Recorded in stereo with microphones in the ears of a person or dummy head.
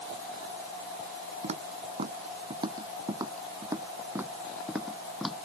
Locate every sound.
1.4 s footsteps: 35° right (ahead or behind); by 5.5 s 5° left (ahead or behind)